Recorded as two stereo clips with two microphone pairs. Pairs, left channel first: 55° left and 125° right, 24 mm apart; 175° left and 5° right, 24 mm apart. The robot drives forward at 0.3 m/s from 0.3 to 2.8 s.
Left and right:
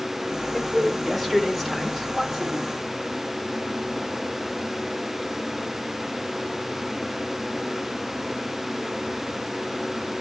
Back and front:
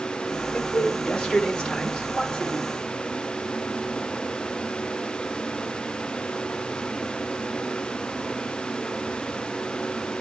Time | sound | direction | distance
0.5 | a man speaking | 125° left | 1.7 m